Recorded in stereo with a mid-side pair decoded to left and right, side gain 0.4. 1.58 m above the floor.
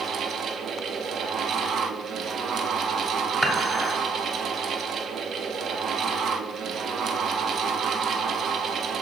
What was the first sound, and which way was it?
A fan, 65° right.